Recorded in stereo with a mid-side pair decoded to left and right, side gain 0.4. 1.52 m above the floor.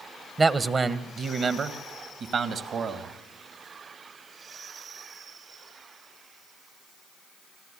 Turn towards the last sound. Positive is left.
turn(degrees=-70)